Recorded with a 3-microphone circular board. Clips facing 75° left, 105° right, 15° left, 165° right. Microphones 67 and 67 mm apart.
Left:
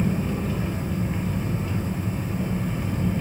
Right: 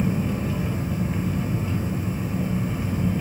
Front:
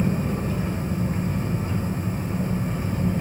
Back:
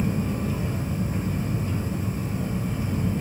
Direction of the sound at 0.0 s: 20° right.